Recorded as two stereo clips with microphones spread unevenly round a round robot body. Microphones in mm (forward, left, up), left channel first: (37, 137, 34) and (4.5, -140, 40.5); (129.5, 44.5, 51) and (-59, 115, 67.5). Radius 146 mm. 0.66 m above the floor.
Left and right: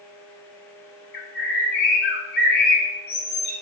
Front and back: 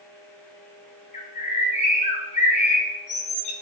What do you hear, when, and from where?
1.1 s a bird: 30° left, 0.5 m